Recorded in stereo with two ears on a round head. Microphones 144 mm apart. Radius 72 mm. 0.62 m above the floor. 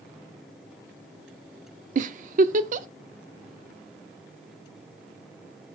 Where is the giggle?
50° right (ahead or behind), 0.5 m.